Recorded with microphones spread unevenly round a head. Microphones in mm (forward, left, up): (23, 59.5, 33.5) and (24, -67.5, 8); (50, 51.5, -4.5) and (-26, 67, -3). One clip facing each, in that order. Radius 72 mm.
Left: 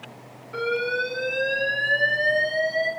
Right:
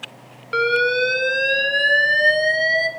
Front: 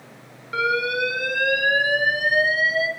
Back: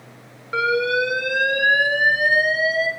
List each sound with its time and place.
0.5 s an alarm: 125° right, 0.9 m